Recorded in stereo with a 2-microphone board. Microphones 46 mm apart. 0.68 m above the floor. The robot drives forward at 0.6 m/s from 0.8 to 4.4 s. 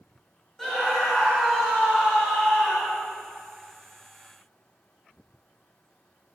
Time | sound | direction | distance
0.6 | a scream | 5° left (ahead or behind) | 5 m